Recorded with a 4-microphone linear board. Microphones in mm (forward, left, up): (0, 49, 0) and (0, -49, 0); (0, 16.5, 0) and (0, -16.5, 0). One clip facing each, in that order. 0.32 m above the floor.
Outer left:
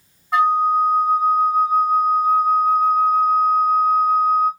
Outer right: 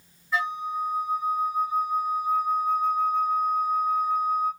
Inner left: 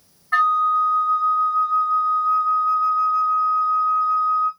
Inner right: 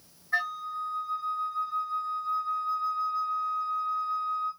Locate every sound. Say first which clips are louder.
0.3 s a flute: outer left 12 dB, inner left 14 dB; 70° left (ahead or behind), 1.4 m